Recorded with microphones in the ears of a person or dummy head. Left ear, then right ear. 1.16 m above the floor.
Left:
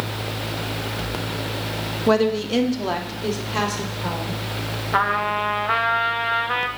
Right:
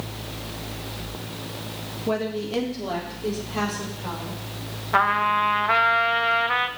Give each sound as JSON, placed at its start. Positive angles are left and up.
{"t": 2.1, "sound": "a woman speaking", "side_deg": 60, "distance_m": 1.6}
{"t": 4.9, "sound": "a trumpet", "side_deg": -10, "distance_m": 0.5}